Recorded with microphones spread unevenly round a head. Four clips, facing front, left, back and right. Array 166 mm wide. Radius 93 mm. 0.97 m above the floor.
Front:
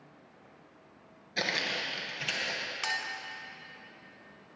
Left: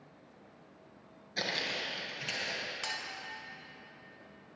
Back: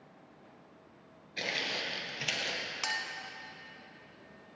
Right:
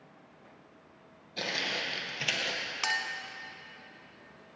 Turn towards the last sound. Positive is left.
turn(degrees=-75)